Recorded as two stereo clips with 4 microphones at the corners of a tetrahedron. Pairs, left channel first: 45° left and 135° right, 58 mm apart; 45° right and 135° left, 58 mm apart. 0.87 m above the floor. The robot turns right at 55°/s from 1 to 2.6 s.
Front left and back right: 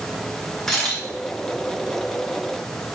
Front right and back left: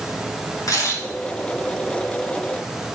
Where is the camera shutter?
35° right, 6.5 m.